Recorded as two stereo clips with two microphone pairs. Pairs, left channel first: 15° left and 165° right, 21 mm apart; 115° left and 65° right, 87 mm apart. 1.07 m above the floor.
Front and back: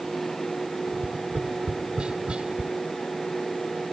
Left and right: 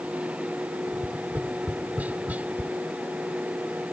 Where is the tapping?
135° right.